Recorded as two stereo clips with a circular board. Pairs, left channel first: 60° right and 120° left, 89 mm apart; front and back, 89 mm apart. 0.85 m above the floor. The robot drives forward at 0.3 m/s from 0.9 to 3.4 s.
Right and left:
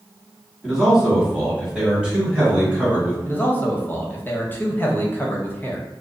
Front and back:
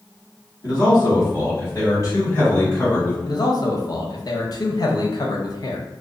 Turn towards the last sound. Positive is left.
turn(degrees=0)